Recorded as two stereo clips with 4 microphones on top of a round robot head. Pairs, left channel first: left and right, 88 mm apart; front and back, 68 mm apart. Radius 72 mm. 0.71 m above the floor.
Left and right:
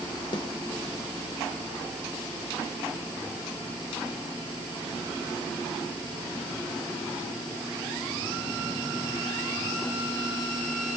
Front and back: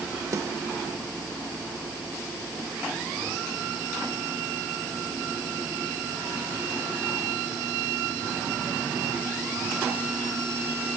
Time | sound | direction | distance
0.3 | a snare drum | 140° left | 0.9 m